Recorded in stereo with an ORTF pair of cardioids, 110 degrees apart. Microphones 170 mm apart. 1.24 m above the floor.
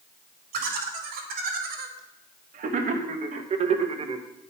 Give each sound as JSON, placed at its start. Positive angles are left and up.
{"t": 0.5, "sound": "laughter", "azimuth_deg": -65, "distance_m": 3.0}